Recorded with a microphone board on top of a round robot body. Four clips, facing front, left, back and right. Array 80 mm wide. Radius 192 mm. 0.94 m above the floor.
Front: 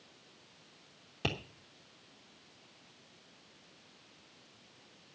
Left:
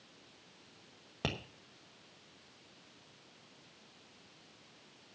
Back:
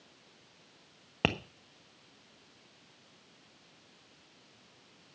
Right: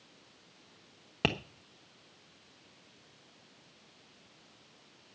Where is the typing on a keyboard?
No typing on a keyboard in this recording.